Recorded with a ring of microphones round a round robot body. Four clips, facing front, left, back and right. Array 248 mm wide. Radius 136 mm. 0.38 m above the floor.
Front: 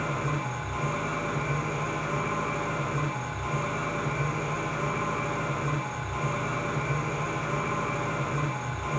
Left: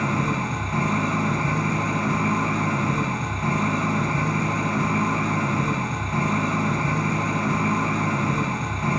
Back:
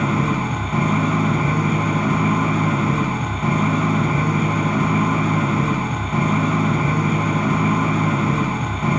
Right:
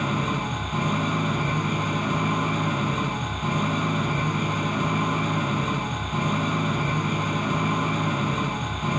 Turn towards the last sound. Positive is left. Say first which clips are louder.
# left 2 dB, back 10 dB
turn(degrees=170)